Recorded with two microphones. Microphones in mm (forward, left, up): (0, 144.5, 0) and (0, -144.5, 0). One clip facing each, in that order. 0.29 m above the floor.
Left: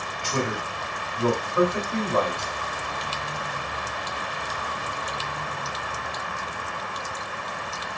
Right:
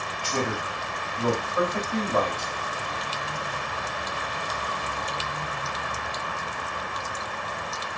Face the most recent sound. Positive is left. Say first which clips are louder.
# left 1 dB
turn(degrees=25)  # may be behind; listen again after turning